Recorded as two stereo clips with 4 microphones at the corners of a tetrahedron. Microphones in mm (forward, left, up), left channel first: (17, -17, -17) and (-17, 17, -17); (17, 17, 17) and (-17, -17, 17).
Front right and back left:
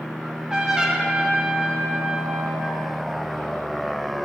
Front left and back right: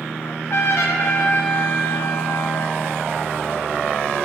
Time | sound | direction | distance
0.2 | a trumpet | 60° left | 1.2 m